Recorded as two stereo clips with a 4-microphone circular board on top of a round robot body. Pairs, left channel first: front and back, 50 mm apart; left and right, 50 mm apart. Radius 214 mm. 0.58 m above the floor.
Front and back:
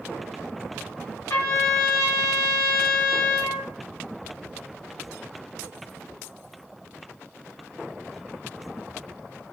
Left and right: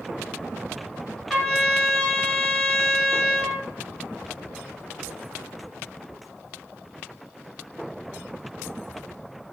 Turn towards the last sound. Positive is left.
turn(degrees=5)